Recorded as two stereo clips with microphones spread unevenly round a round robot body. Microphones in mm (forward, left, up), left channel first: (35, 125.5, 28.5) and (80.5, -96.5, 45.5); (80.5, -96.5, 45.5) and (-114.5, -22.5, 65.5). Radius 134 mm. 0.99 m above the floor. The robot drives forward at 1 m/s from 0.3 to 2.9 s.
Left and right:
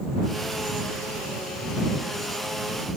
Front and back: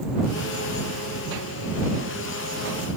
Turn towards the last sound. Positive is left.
No sound to turn to.